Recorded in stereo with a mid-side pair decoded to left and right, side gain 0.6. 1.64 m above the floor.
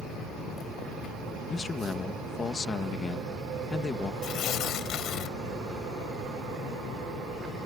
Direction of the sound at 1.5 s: 25° left.